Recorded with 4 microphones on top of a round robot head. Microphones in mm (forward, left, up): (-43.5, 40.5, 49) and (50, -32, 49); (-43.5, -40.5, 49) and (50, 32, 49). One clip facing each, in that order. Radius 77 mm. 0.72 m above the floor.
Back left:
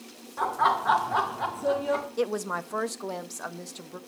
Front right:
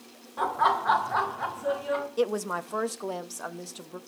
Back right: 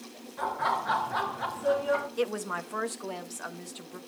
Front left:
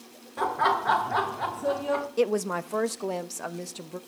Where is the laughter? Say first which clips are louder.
Even, front left 4 dB; 45° left, 3 m; by 2.1 s 105° left, 2.5 m.